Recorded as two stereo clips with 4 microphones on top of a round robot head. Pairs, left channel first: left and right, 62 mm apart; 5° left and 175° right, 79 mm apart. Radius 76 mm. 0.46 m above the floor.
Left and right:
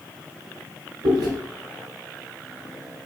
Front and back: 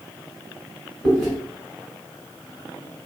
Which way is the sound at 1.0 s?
85° right.